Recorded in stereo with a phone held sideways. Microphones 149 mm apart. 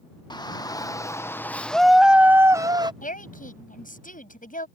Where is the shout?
30° left (ahead or behind); by 2.9 s 30° right (ahead or behind).